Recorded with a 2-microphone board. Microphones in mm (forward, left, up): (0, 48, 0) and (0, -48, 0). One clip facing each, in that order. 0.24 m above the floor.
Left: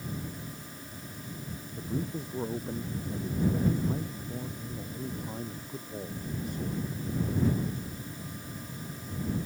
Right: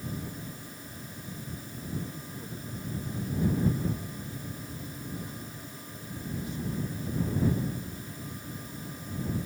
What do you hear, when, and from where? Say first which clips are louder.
1.8 s a man speaking: left 5 dB; 70° left (ahead or behind); by 7.0 s 50° left (ahead or behind)